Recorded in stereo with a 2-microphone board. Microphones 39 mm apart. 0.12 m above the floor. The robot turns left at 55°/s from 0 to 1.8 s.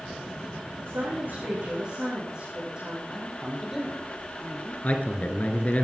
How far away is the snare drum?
No snare drum in this recording.